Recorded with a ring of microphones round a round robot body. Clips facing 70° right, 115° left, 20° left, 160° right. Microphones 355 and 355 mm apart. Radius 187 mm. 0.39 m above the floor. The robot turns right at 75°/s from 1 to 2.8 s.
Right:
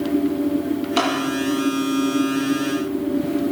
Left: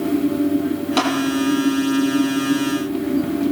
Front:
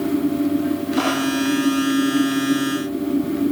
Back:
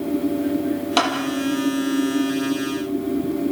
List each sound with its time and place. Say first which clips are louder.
1.0 s a clap: left 3 dB, front 3 dB; 160° right, 9 m; by 1.1 s 155° right, 9 m